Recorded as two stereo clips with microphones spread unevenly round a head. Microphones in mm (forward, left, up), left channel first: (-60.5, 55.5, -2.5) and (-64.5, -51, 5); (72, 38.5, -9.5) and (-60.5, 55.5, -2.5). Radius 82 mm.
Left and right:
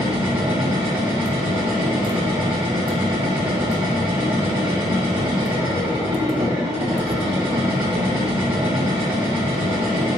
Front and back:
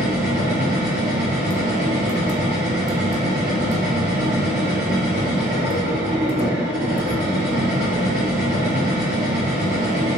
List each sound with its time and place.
0.0 s a machine running: 135° right, 1.5 m